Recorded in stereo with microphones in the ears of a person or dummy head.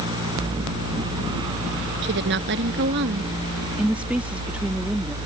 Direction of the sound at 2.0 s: 55° right (ahead or behind).